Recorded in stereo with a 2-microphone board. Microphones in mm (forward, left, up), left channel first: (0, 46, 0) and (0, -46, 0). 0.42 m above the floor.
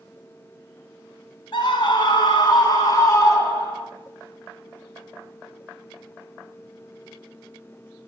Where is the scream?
55° left (ahead or behind), 3 m; by 3.9 s 30° left (ahead or behind), 3 m.